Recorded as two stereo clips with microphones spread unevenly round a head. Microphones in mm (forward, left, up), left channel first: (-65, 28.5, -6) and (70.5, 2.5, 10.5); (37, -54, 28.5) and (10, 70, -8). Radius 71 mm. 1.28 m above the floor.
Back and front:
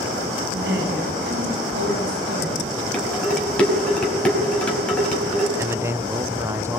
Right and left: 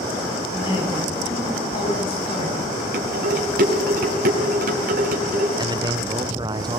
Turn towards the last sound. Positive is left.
turn(degrees=65)